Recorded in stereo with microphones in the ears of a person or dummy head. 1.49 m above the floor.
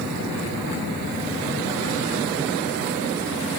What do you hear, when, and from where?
Only background noise.